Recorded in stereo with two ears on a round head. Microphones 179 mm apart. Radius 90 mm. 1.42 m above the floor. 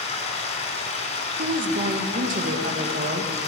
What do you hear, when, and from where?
0.0 s running water: 35° left (ahead or behind), 2.5 m
1.4 s a woman speaking: 40° right (ahead or behind), 1.1 m